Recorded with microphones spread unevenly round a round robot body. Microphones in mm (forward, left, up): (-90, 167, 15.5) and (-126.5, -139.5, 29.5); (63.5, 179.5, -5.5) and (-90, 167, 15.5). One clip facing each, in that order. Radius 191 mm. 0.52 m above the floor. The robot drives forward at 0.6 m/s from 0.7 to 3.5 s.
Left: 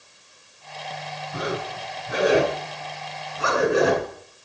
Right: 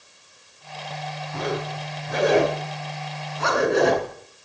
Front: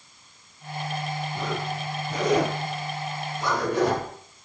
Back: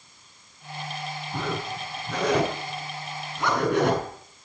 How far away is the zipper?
About 4 m.